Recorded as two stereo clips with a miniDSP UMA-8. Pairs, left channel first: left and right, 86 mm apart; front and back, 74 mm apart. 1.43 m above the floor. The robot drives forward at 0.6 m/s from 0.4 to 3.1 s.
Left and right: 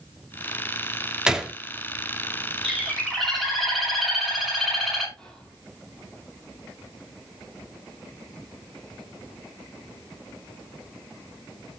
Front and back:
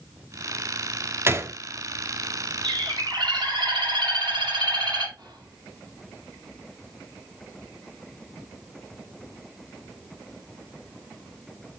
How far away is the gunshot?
About 1.1 m.